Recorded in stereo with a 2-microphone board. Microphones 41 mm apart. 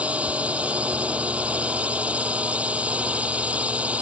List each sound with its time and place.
0.0 s a drone: 35° right (ahead or behind)